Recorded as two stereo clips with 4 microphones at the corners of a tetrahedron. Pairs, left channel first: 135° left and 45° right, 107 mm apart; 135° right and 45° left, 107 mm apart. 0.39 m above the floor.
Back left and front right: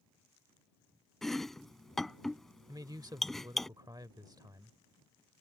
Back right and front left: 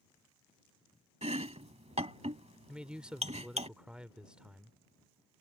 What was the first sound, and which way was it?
Chopping, 50° left.